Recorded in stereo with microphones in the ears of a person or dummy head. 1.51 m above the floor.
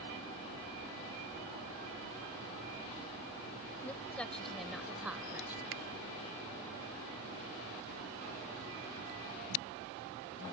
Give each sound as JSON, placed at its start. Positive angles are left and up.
{"t": 3.8, "sound": "a woman speaking", "side_deg": 5}
{"t": 5.7, "sound": "a finger snap", "side_deg": -75}